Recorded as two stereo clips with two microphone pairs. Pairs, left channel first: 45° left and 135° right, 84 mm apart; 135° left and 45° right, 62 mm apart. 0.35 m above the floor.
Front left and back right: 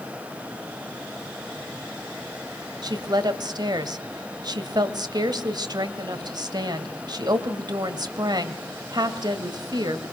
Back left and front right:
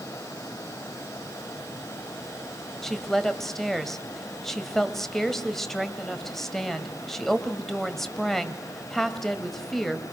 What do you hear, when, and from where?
2.8 s a woman speaking: 140° right, 1.7 m